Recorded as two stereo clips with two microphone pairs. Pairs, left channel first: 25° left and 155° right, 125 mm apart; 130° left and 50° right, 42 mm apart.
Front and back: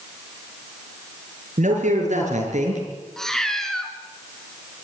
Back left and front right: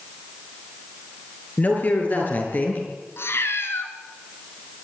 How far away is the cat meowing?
About 2.0 m.